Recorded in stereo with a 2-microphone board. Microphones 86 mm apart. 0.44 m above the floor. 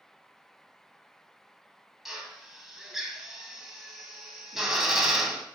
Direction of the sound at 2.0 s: 5° right (ahead or behind).